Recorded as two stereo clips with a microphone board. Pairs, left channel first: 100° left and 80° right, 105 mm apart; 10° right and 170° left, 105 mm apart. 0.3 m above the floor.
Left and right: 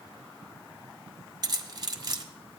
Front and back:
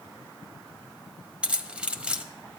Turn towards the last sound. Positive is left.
turn(degrees=-115)